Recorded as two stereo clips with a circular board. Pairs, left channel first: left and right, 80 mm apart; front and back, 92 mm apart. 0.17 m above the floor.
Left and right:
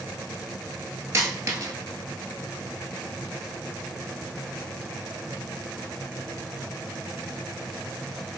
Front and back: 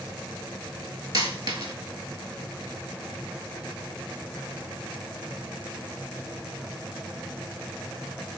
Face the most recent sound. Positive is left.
turn(degrees=-140)